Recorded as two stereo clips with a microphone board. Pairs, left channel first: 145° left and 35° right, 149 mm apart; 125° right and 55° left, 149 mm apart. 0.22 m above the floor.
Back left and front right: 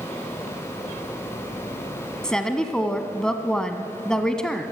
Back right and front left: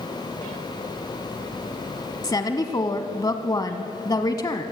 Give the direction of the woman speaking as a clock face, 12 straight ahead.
5 o'clock.